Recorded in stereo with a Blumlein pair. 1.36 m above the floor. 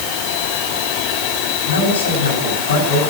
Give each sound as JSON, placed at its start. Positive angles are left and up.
{"t": 1.7, "sound": "a man speaking", "azimuth_deg": 65, "distance_m": 9.0}